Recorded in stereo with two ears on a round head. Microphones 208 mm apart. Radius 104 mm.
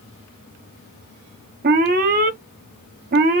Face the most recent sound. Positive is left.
turn(degrees=-40)  # may be behind; listen again after turning